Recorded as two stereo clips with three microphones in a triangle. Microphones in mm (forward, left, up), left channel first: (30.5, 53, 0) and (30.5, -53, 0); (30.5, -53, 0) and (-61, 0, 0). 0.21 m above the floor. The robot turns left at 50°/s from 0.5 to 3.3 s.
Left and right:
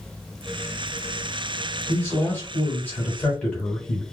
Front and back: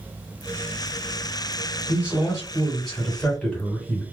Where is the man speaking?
105° left, 1.5 m; by 4.0 s 35° left, 1.5 m.